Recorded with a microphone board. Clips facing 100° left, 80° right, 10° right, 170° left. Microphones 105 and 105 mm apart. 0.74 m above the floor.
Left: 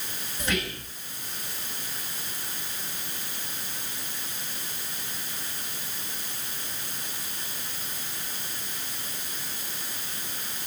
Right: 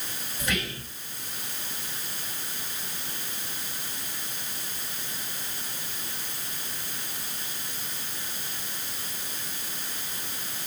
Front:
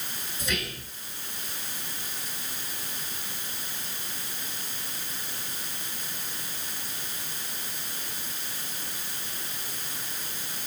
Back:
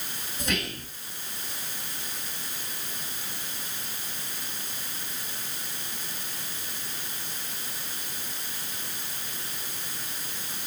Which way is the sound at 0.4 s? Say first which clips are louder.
Left 1 dB, back 2 dB; 170° left.